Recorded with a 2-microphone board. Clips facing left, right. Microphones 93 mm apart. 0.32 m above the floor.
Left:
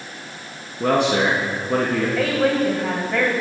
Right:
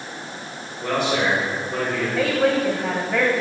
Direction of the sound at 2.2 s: Centre (ahead or behind).